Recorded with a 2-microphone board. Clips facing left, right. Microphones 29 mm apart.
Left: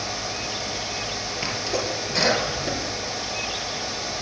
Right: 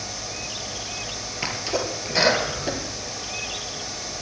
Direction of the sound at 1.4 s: 5° right (ahead or behind).